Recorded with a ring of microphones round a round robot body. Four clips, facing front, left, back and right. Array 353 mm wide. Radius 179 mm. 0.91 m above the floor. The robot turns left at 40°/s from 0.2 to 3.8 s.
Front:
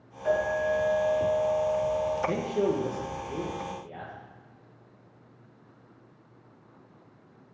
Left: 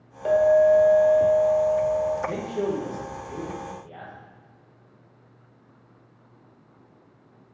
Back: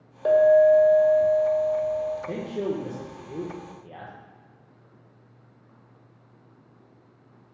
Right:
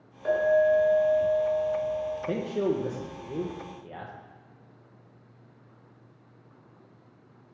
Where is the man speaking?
60° right, 0.9 m; by 4.1 s 120° right, 0.9 m.